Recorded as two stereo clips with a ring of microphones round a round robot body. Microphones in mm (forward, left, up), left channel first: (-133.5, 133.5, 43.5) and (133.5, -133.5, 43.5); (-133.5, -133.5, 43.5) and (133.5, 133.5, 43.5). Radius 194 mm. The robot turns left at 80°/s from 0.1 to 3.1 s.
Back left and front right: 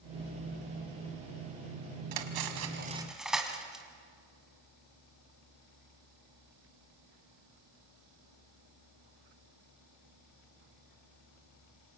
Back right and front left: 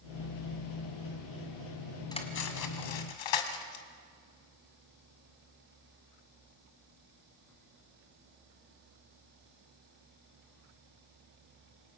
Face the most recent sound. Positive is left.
turn(degrees=-135)